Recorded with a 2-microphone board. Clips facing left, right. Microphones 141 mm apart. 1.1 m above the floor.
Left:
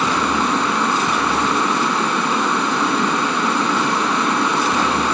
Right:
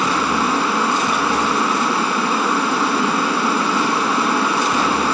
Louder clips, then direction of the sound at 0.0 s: Even; 5° right (ahead or behind).